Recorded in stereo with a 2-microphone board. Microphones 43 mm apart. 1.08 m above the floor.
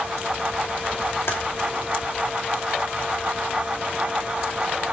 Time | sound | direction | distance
1.3 | typing on a keyboard | 80° left | 2.5 m